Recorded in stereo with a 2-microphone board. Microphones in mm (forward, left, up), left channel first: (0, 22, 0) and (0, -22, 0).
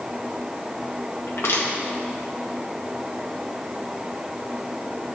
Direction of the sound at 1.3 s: 75° left (ahead or behind).